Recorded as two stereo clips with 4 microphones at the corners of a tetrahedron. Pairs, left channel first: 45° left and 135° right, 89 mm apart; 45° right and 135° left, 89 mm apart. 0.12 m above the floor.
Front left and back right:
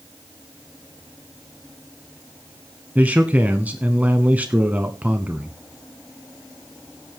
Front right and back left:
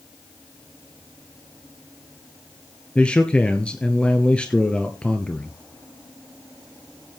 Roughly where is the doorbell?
I don't hear a doorbell.